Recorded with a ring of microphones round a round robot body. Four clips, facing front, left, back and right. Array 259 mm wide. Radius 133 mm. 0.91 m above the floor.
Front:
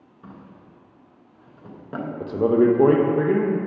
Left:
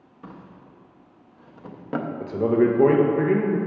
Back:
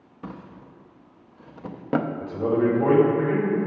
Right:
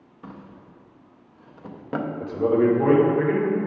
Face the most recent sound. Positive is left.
turn(degrees=30)